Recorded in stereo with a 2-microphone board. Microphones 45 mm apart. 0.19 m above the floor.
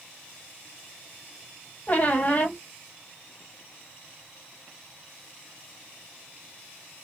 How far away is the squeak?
About 0.8 m.